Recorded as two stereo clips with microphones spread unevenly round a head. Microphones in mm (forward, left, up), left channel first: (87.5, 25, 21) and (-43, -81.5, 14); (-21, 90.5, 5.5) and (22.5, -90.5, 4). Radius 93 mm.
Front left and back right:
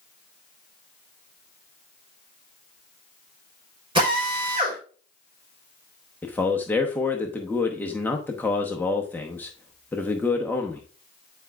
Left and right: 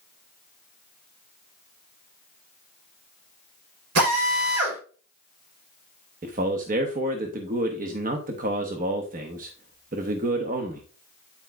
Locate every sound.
4.0 s a drill: 80° right, 3.5 m
6.2 s a man speaking: 40° right, 0.9 m